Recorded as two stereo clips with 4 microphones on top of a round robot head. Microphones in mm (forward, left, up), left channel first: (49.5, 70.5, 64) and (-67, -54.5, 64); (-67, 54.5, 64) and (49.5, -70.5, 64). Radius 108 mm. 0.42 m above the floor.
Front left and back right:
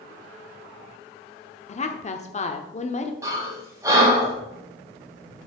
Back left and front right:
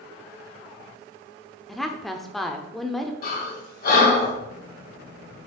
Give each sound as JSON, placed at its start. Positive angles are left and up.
{"t": 1.7, "sound": "a woman speaking", "azimuth_deg": 45, "distance_m": 1.2}
{"t": 3.2, "sound": "breathing", "azimuth_deg": 155, "distance_m": 4.0}